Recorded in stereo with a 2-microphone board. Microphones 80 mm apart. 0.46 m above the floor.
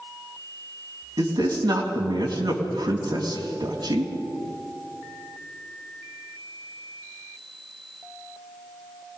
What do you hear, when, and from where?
1.2 s a man speaking: 65° right (ahead or behind), 3 m